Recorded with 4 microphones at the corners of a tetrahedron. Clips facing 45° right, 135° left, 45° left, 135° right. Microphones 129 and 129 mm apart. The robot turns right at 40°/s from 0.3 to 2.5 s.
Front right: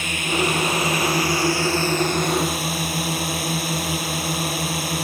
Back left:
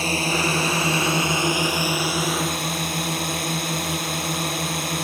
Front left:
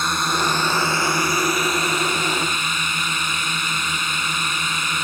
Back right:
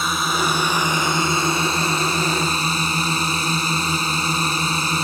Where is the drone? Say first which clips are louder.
Even, even; 140° left; by 5.0 s 130° right.